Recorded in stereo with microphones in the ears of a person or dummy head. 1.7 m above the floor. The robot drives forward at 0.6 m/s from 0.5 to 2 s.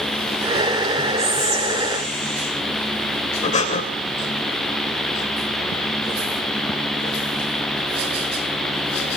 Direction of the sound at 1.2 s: 45° right (ahead or behind).